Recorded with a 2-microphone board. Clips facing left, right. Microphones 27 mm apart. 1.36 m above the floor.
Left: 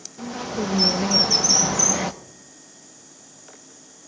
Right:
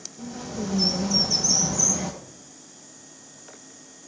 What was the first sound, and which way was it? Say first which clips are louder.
A bird: left 5 dB; 50° left (ahead or behind).